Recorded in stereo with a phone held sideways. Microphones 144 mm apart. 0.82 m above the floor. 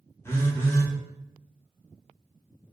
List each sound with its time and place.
0.2 s a phone buzzing: 15° left (ahead or behind), 0.8 m